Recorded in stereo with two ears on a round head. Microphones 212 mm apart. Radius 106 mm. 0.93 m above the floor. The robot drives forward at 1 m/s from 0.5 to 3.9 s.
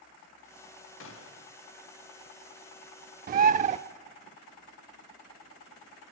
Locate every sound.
1.0 s a gunshot: 55° left (ahead or behind), 1.6 m; by 1.5 s 60° left (ahead or behind), 1.6 m
3.3 s a bird: 35° right (ahead or behind), 0.6 m; by 3.8 s 30° right (ahead or behind), 0.7 m